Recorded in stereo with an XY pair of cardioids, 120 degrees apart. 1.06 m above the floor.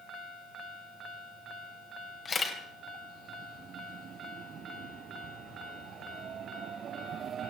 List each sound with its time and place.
2.2 s a camera shutter: 30° left, 3 m